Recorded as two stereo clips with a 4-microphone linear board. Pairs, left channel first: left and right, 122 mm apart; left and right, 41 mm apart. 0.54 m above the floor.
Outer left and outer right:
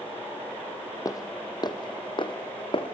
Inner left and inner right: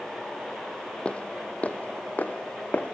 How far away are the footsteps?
About 1.3 m.